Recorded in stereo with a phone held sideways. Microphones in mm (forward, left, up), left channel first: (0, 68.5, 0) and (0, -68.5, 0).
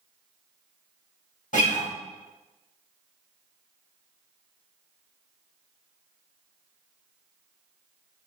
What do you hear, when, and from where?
1.5 s a guitar: 70° left (ahead or behind), 1.3 m